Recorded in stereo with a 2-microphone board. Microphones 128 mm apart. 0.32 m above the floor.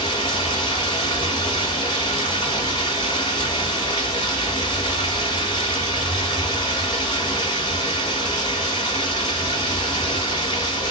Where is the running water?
40° left (ahead or behind), 1.4 m.